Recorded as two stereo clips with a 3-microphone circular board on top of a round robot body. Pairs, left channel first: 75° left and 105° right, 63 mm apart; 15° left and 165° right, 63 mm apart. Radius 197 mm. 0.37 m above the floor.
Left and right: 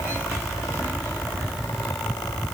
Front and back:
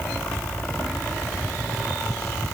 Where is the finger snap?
I don't hear a finger snap.